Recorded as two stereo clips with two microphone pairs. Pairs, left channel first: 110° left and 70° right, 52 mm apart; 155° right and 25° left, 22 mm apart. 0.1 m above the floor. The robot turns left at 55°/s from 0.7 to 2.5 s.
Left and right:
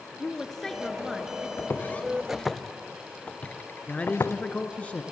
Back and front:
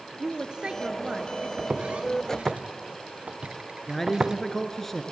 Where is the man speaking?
145° left, 1.6 m.